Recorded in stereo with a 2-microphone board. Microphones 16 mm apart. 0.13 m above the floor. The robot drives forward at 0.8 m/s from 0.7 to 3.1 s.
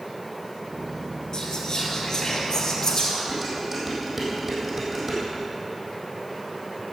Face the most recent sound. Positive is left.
turn(degrees=-25)  # may be behind; listen again after turning